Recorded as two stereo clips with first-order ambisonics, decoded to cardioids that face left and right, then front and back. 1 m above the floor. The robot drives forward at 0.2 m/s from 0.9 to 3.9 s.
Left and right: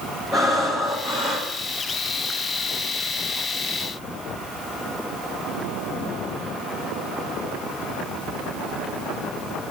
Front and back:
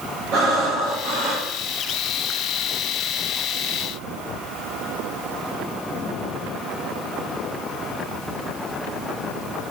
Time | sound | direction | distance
0.3 | breathing | 175° right | 5.5 m